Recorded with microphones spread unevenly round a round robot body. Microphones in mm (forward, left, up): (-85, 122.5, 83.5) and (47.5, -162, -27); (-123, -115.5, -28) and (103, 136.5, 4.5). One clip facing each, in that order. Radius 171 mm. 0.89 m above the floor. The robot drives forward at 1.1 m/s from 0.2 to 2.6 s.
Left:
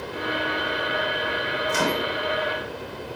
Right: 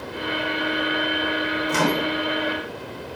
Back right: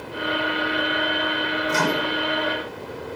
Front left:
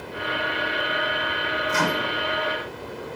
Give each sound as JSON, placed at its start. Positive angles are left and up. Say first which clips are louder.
{"t": 1.7, "sound": "a microwave", "louder": "right 3 dB, back right 2 dB", "azimuth_deg": -85, "distance_m": 2.5}